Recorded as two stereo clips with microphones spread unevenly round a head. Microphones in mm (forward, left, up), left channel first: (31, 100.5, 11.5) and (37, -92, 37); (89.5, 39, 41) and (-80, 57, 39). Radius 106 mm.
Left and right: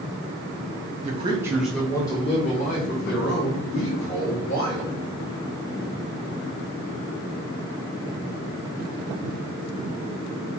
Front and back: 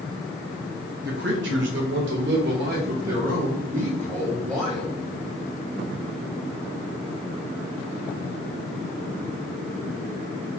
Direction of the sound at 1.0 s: 140° right.